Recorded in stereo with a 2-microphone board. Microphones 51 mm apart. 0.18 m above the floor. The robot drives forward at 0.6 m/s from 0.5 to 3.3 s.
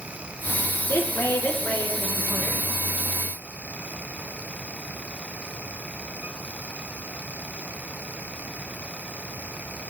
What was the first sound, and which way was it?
A woman speaking, 60° left (ahead or behind).